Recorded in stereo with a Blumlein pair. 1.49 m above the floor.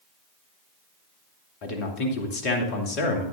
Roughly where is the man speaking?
Ahead left.